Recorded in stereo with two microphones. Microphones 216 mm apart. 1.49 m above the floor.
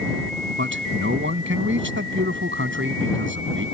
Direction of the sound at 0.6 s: 60° right (ahead or behind).